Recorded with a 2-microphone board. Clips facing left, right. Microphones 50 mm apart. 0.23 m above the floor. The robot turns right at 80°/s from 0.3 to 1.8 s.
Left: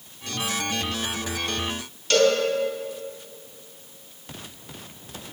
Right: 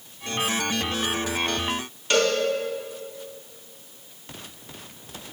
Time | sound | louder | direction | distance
2.1 | a cowbell | left 2 dB | 20° right (ahead or behind) | 2 m